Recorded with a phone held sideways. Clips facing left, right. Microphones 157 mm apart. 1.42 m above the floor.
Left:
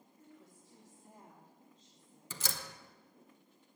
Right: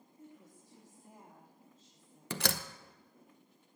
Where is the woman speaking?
25° right (ahead or behind), 3 m; by 2.2 s centre (ahead or behind), 4.5 m.